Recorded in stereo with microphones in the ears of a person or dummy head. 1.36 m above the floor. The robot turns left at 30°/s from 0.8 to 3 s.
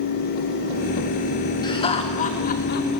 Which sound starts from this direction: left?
Laughter, at 1.6 s.